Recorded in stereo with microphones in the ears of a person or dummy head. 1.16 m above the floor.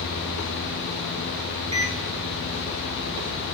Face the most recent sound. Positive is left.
turn(degrees=-25)  # may be behind; listen again after turning